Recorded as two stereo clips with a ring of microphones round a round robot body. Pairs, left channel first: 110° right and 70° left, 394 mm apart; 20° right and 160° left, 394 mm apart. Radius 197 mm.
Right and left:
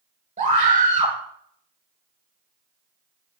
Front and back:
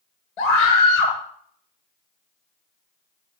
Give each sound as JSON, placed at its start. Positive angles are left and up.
{"t": 0.4, "sound": "a scream", "azimuth_deg": -5, "distance_m": 7.0}